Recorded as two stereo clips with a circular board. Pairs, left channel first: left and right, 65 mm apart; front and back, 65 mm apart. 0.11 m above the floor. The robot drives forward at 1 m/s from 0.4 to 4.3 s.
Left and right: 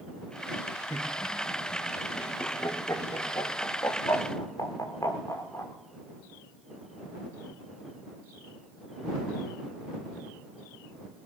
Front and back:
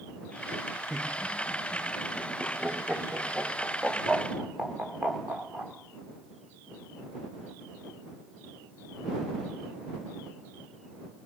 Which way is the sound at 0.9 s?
95° left.